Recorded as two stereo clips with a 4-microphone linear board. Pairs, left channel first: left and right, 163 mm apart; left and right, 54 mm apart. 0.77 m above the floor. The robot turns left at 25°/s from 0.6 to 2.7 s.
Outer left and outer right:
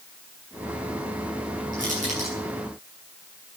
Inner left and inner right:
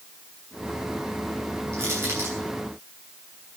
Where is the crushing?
55° right (ahead or behind), 7.5 m; by 2.4 s 40° right (ahead or behind), 7.5 m.